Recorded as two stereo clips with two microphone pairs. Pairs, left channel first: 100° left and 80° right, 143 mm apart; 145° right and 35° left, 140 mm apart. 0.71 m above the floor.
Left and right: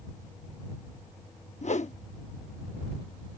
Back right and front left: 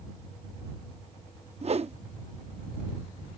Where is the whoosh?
75° left.